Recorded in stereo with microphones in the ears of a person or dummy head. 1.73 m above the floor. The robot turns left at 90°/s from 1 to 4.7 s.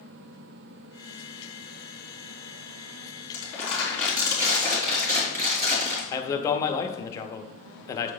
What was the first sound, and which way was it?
Crumpling, 65° left.